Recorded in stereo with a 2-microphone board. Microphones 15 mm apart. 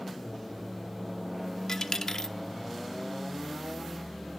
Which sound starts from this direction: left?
A dropped coin, at 1.7 s.